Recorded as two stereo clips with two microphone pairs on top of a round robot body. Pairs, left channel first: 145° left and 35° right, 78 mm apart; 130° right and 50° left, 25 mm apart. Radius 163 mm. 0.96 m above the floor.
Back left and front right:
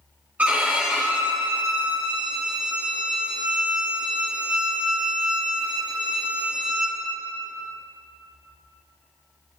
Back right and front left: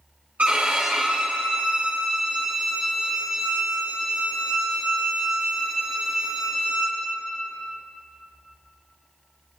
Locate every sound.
0.4 s a violin: 30° left, 1.4 m